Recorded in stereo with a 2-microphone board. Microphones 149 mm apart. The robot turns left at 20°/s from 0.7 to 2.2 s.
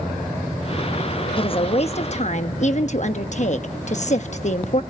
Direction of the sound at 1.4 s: 35° left (ahead or behind).